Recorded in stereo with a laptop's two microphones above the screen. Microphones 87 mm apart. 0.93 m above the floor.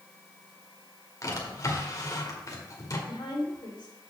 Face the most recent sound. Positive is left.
turn(degrees=60)  # may be behind; listen again after turning